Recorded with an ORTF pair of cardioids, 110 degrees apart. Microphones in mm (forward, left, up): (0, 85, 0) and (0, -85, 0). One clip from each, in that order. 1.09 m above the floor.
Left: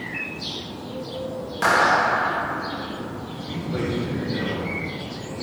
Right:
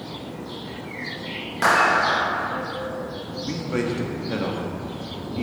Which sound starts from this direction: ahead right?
A man speaking, at 3.4 s.